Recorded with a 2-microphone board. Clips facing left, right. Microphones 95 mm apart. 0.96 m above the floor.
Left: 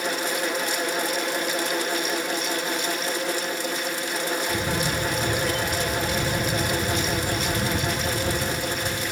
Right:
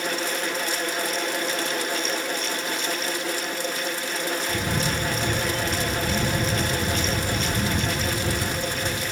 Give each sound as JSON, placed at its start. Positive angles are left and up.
{"t": 4.5, "sound": "a camera shutter", "side_deg": -25, "distance_m": 2.5}